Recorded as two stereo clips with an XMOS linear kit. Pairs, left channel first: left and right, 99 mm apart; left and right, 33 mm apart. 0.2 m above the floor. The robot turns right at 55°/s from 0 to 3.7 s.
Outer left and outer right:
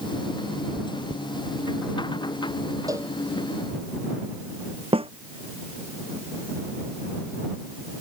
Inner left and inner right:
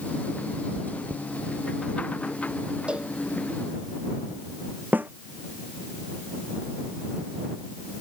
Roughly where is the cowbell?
Right.